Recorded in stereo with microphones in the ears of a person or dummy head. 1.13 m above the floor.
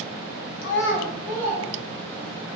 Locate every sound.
0.6 s a child speaking: 60° left (ahead or behind), 0.7 m; by 2.4 s 15° right (ahead or behind), 2.5 m